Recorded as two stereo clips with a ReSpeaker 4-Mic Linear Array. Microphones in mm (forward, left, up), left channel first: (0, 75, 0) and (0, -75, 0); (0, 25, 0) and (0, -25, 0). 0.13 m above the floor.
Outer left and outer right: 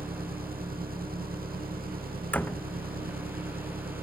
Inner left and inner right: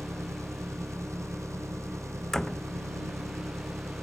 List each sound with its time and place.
0.0 s an engine running: 75° right (ahead or behind)
2.3 s a door slam: 10° left (ahead or behind)